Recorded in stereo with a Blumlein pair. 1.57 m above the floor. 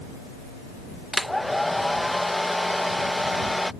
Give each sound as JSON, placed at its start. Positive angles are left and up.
{"t": 1.1, "sound": "a hair dryer", "azimuth_deg": 5}